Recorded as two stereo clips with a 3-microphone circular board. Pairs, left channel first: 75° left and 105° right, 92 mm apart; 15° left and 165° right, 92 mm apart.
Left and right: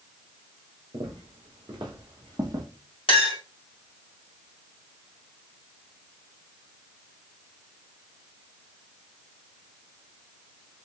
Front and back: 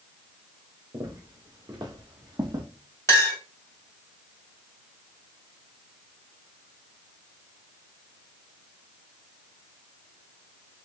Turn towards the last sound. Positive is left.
turn(degrees=75)